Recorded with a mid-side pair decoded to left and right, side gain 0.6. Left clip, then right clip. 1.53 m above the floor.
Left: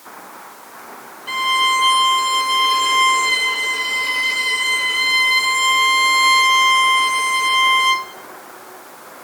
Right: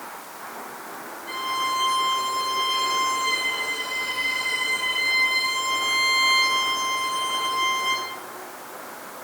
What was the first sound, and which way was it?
A violin, 55° left.